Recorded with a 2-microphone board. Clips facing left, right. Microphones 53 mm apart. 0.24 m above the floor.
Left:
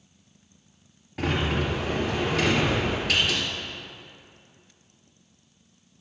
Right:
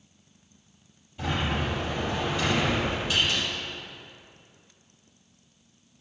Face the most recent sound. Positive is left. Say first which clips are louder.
# left 3 dB
turn(degrees=75)  # may be behind; listen again after turning